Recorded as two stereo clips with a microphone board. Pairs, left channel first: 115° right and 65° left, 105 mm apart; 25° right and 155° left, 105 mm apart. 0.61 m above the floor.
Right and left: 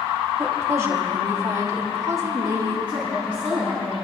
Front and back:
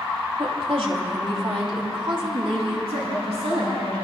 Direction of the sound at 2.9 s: 170° left.